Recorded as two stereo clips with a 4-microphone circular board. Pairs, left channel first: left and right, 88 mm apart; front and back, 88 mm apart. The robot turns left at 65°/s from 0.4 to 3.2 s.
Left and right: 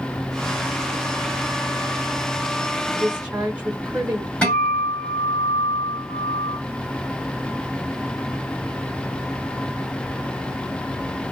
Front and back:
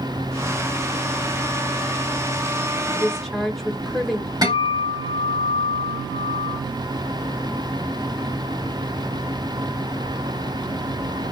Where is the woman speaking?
75° right, 1.1 m; by 4.3 s 90° right, 1.1 m.